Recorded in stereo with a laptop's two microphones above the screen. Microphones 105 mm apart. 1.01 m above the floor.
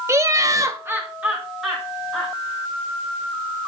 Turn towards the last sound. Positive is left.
turn(degrees=0)  # may be behind; listen again after turning